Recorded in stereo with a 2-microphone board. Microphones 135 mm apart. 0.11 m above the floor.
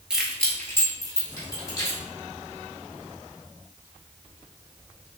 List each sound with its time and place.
0.1 s keys jangling: 5° right (ahead or behind), 1.0 m; by 2.0 s 35° left (ahead or behind), 2.5 m